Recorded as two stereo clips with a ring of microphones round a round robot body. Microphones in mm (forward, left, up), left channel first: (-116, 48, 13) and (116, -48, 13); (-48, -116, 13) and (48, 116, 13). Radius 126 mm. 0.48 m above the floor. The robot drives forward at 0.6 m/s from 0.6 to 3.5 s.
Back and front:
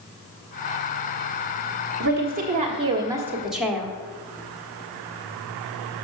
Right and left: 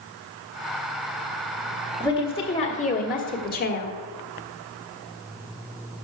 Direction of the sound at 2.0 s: 45° right.